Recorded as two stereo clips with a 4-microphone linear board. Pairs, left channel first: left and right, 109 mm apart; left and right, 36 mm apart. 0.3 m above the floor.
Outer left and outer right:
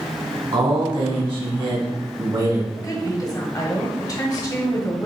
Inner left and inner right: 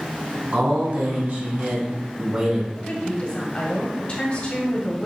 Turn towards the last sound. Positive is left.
turn(degrees=35)  # may be behind; listen again after turning